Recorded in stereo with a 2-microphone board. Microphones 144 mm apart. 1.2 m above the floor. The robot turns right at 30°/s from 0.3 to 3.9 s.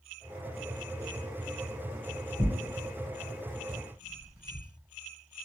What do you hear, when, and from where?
2.4 s tearing paper: 30° left (ahead or behind), 1.7 m; by 4.7 s 10° right (ahead or behind), 1.7 m